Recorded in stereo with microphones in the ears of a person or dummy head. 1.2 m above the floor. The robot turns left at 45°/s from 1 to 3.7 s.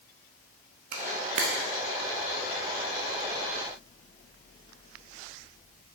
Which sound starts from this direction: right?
A camera shutter, at 0.9 s.